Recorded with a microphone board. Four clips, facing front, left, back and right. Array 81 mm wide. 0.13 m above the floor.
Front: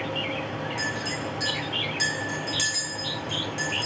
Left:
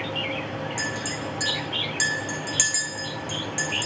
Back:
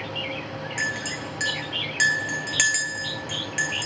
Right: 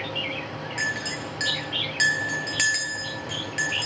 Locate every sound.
0.8 s a clink: 160° right, 1.5 m